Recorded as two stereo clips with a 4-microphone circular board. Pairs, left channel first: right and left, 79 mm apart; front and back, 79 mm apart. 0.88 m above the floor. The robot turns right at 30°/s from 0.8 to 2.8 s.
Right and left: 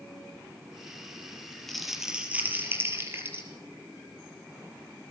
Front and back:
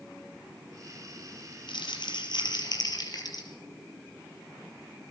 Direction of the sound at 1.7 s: 5° right.